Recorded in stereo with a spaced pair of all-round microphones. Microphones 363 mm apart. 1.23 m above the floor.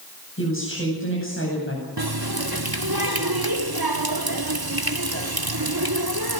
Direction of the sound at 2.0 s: 80° right.